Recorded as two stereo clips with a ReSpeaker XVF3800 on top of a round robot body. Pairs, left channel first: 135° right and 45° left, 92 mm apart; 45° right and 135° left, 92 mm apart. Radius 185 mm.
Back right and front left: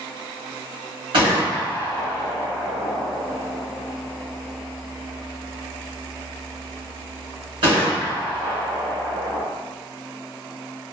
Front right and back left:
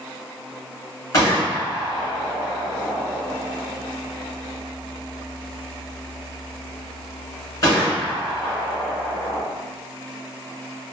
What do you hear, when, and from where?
1.1 s a gunshot: 10° left, 1.6 m